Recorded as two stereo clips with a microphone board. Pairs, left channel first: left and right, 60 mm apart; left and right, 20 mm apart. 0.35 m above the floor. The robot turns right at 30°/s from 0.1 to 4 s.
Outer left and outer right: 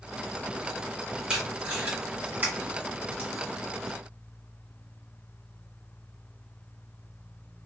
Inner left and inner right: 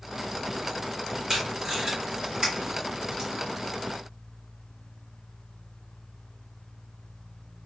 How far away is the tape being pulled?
About 1.7 m.